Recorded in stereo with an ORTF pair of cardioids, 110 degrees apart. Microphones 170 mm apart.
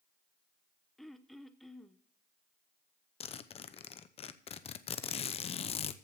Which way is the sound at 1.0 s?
Straight ahead.